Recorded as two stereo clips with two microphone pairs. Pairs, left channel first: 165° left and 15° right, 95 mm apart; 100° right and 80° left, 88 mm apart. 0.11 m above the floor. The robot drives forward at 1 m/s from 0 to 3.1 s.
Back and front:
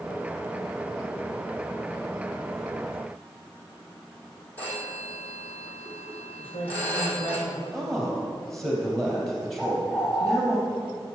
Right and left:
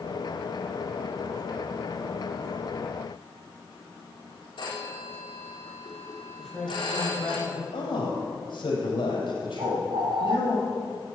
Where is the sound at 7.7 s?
105° right, 4.5 m.